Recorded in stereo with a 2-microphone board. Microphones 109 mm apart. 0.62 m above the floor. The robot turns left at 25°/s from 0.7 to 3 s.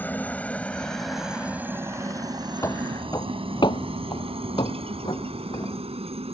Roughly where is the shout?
I don't hear a shout.